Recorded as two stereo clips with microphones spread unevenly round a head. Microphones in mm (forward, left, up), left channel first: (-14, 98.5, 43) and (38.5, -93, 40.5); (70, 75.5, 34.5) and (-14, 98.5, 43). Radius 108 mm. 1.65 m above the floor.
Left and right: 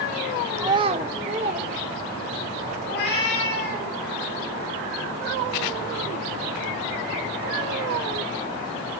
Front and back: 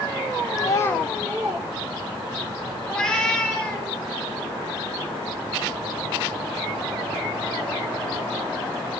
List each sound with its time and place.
0.6 s a child speaking: 10° right, 0.5 m; by 2.5 s 140° right, 1.6 m
2.9 s a cat meowing: 65° left, 4.5 m